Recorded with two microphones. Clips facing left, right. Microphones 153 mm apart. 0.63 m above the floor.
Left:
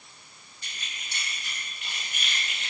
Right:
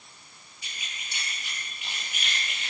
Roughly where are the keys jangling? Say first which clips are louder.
Even; centre.